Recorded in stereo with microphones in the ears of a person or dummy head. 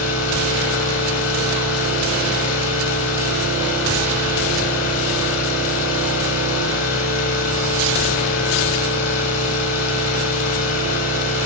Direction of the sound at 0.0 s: 75° left (ahead or behind).